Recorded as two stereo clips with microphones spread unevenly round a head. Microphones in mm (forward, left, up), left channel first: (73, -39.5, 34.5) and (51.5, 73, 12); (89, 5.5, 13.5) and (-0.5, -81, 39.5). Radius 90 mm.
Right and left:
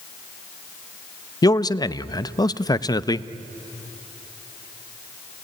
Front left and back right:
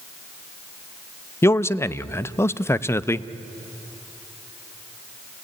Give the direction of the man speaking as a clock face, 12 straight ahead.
1 o'clock.